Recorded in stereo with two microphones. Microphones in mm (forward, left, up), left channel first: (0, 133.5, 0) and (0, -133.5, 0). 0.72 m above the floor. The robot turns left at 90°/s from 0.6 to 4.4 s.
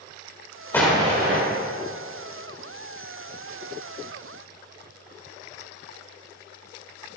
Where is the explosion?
10° left, 1.7 m; by 1.4 s 50° right, 1.7 m.